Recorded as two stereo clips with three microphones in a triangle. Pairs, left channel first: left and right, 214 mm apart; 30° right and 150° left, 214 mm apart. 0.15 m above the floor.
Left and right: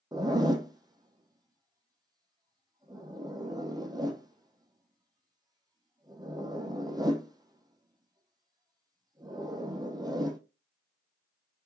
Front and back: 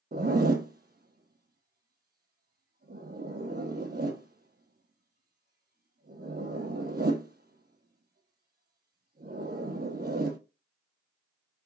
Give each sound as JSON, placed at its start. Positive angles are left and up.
{"t": 0.1, "sound": "a zipper", "azimuth_deg": -160, "distance_m": 0.7}